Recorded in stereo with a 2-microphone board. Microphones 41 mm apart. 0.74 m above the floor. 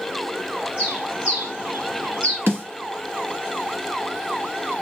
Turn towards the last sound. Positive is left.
turn(degrees=-65)  # may be behind; listen again after turning